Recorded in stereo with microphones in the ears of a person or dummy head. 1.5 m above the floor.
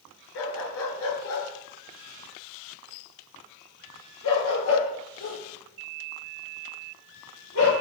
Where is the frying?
I don't hear frying.